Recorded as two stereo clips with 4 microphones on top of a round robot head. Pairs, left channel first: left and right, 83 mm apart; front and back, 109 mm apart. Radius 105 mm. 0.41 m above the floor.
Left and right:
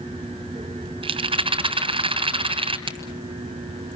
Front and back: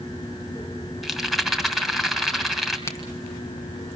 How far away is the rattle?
About 2.5 m.